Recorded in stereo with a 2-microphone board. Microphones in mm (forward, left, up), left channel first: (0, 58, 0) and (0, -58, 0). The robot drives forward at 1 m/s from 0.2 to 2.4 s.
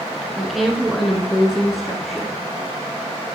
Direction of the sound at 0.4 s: Centre (ahead or behind).